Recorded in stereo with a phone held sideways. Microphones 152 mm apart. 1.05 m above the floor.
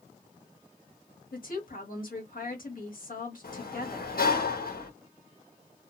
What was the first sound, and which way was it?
A woman speaking, 70° left (ahead or behind).